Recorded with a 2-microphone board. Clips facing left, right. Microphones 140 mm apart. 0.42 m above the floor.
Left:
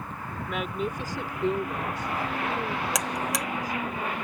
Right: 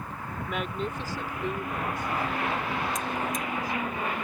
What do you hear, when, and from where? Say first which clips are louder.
0.5 s a woman speaking: left 2 dB; 5° right (ahead or behind); by 4.0 s 50° left (ahead or behind)
3.0 s a buzzer: left 1 dB; 85° left